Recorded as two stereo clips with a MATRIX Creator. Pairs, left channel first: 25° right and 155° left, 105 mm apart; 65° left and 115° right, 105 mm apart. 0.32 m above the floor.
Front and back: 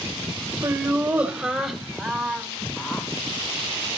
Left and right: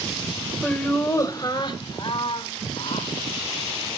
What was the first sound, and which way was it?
Laughter, 135° left.